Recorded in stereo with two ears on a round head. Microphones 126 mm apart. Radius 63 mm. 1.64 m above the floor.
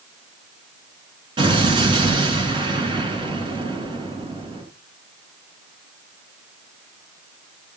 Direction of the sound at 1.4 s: 35° right (ahead or behind).